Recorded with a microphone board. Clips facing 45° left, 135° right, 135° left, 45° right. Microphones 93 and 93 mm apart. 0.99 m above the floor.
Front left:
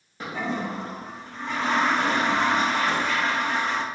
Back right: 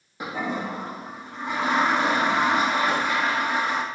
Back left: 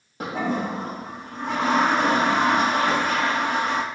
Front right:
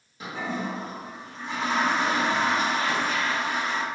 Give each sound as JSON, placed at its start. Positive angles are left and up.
{"t": 0.2, "sound": "a toilet flushing", "azimuth_deg": 150, "distance_m": 1.5}